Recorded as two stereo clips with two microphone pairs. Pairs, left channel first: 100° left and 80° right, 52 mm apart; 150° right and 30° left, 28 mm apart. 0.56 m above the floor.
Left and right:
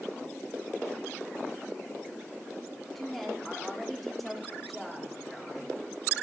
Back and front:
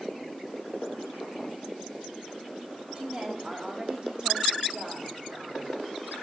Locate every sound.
3.0 s a woman speaking: 15° left, 1.2 m